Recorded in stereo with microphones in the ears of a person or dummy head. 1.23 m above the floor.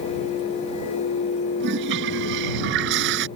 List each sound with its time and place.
1.6 s a toilet flushing: 60° right (ahead or behind)